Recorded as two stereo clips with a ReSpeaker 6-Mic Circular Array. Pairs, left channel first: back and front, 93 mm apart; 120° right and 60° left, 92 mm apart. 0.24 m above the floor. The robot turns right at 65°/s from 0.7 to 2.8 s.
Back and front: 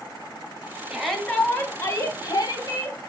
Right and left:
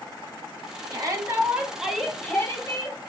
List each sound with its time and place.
0.9 s a shout: 80° left, 1.3 m; by 3.0 s 155° right, 1.3 m